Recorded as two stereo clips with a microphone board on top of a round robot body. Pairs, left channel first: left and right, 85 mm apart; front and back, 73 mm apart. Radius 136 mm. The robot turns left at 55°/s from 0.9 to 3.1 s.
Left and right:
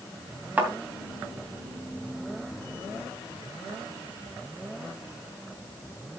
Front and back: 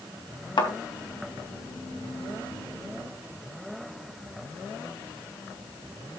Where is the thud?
20° right, 3 m.